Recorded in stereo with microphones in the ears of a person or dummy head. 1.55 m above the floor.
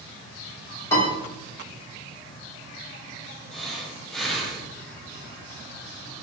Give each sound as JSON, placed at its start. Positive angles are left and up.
{"t": 0.9, "sound": "a piano", "side_deg": 20, "distance_m": 1.9}
{"t": 3.5, "sound": "breathing", "side_deg": 0, "distance_m": 0.7}